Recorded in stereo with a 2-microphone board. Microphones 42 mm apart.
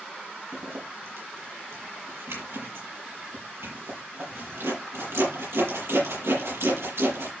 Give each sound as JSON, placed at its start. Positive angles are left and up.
{"t": 0.5, "sound": "a zipper", "side_deg": -80, "distance_m": 6.5}